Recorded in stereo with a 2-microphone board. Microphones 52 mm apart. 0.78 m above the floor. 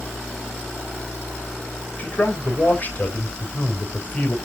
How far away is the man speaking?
About 3 m.